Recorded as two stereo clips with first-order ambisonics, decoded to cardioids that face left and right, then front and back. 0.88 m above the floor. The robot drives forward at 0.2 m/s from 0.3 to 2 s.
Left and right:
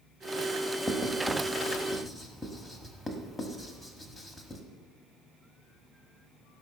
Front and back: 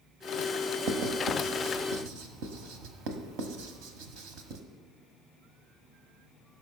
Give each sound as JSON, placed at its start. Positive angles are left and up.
{"t": 0.9, "sound": "writing", "azimuth_deg": 180, "distance_m": 1.2}